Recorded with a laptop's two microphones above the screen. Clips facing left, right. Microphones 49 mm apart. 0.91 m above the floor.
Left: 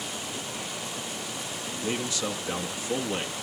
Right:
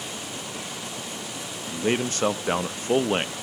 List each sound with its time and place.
1.7 s a man speaking: 45° right (ahead or behind), 0.6 m